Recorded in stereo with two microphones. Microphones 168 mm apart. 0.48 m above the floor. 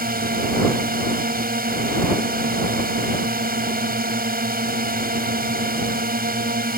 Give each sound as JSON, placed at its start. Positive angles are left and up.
{"t": 0.0, "sound": "a drone", "side_deg": -65}